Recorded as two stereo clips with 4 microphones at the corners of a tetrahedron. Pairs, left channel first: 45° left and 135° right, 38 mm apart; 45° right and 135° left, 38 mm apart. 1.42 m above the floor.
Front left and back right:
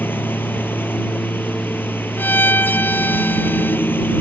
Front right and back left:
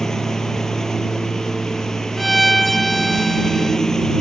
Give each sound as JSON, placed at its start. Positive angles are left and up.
{"t": 0.0, "sound": "a lawn mower", "azimuth_deg": 30}
{"t": 2.2, "sound": "a violin", "azimuth_deg": 40}